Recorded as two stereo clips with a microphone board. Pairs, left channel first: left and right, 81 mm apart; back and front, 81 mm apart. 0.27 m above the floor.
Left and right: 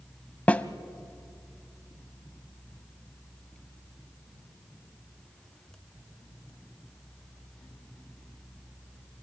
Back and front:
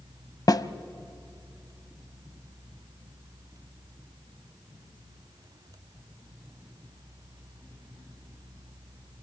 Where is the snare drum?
160° left, 0.7 m.